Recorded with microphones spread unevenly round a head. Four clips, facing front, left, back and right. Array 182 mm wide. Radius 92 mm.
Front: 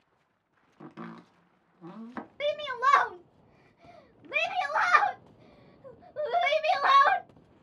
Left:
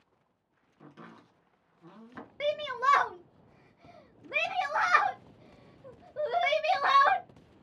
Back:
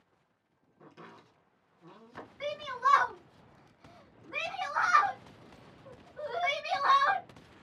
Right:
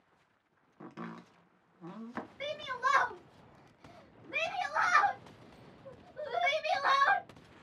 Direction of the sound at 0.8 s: 35° right.